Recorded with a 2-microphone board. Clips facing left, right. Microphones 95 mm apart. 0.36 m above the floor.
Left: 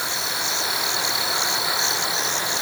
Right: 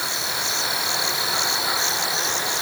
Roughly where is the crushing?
I don't hear crushing.